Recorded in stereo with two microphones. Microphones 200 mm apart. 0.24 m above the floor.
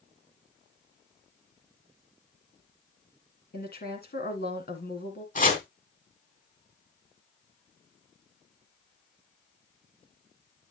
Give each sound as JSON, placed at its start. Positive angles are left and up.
{"t": 3.5, "sound": "a woman speaking", "side_deg": 50, "distance_m": 2.5}
{"t": 5.3, "sound": "chopping", "side_deg": 40, "distance_m": 2.5}